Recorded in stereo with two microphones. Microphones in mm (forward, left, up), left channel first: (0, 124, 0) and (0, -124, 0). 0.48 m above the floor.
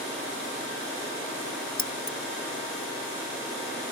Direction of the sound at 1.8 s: 50° left (ahead or behind).